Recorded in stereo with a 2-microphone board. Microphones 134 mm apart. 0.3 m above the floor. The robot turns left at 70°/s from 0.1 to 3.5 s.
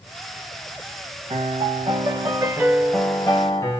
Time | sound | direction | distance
1.3 | a piano | 65° right | 1.3 m